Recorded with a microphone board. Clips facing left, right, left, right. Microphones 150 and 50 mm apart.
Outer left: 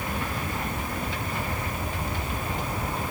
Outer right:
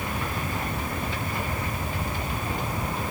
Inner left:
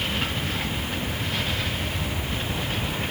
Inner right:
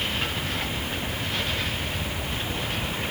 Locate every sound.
Only background noise.